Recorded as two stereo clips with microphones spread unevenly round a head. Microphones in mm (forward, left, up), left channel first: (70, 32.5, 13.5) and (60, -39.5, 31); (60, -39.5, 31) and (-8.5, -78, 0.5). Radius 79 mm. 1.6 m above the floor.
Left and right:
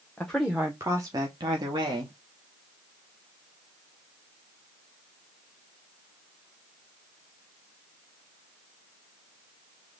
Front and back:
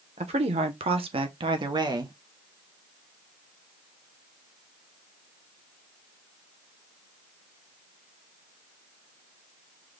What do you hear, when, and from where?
0.2 s a woman speaking: 170° left, 0.8 m; by 2.1 s 105° right, 1.2 m